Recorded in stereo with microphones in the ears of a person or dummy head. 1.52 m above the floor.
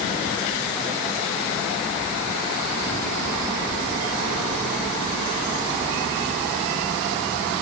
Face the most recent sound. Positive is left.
No sound to turn to.